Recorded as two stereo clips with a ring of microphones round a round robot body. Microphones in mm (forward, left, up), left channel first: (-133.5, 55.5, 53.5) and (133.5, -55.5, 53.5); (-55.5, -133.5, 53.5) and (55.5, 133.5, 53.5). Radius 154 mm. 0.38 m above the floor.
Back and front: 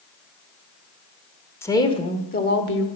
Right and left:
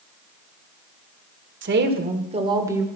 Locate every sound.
1.6 s a woman speaking: 80° left, 1.4 m; by 2.9 s 150° left, 1.4 m